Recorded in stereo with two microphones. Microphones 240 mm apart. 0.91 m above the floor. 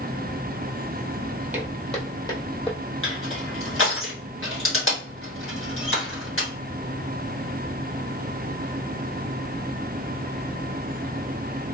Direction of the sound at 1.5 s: 10° right (ahead or behind).